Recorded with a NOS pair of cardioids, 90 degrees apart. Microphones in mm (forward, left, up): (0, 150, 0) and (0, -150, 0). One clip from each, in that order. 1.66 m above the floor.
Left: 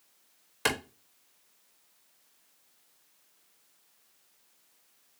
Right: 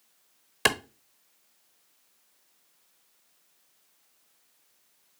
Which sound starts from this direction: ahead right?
A clap, at 0.7 s.